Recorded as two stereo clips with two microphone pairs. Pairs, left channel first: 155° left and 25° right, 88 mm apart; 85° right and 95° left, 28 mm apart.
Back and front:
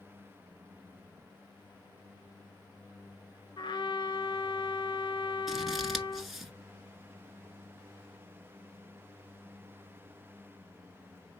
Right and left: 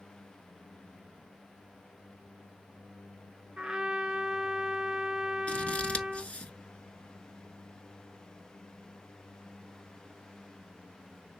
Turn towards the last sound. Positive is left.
turn(degrees=-115)